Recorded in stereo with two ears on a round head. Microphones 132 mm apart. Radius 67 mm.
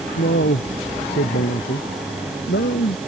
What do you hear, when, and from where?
0.2 s a man speaking: 90° left; by 3.0 s 85° left